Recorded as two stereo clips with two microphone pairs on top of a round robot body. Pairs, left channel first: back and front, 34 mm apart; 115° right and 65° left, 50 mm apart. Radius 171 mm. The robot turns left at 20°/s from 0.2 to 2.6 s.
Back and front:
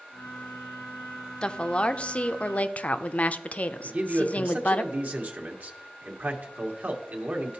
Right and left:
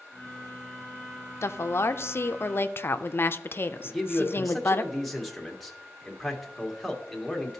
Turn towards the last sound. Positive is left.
turn(degrees=-25)